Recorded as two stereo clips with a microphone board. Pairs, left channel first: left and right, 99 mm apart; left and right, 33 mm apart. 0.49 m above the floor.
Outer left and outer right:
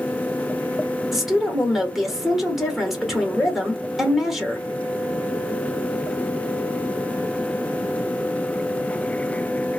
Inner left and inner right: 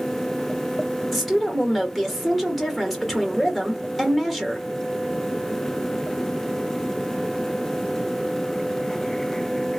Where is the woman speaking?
5° right (ahead or behind), 1.1 m.